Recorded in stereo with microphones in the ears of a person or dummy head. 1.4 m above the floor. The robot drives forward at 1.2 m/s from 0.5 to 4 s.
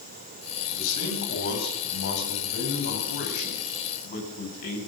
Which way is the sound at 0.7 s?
90° left.